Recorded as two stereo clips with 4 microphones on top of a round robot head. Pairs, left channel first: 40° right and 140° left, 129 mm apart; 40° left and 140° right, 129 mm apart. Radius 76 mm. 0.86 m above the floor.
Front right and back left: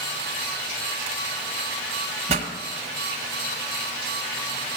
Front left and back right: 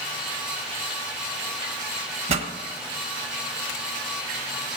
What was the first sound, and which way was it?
A pop, straight behind.